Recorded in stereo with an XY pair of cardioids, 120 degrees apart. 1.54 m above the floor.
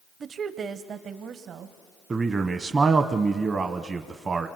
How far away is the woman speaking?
About 0.9 m.